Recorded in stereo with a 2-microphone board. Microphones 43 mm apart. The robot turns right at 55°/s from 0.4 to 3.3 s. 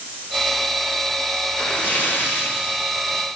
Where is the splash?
40° left, 2.5 m; by 3.3 s 135° left, 2.5 m.